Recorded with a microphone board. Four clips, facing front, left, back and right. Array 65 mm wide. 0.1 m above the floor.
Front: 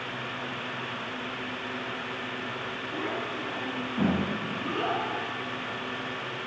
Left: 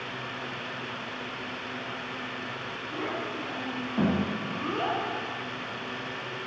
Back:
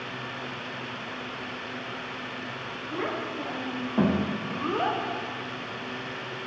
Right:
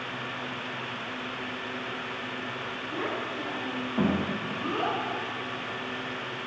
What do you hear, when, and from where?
2.9 s a child speaking: 175° right, 6.5 m; by 5.0 s 175° left, 5 m